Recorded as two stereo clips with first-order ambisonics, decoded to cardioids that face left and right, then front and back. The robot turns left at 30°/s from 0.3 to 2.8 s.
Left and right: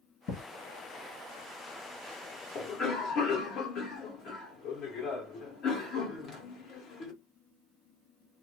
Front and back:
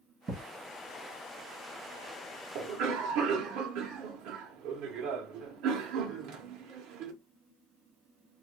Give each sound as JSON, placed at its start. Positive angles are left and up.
{"t": 0.3, "sound": "a thud", "azimuth_deg": 120, "distance_m": 1.7}
{"t": 2.5, "sound": "a cough", "azimuth_deg": 150, "distance_m": 0.6}